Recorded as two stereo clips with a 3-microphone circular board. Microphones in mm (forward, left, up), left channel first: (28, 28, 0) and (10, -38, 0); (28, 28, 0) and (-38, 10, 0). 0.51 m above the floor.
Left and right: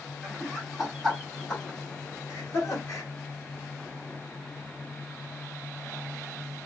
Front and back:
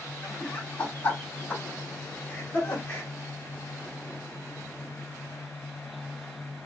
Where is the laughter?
30° right, 1.5 m; by 3.1 s 65° left, 1.5 m.